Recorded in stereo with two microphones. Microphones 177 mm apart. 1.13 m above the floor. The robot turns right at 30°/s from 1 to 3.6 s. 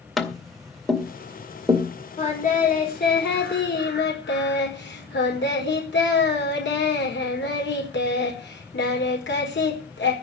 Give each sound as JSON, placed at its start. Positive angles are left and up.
{"t": 0.2, "sound": "tapping", "side_deg": 0, "distance_m": 1.9}
{"t": 2.2, "sound": "singing", "azimuth_deg": 35, "distance_m": 4.5}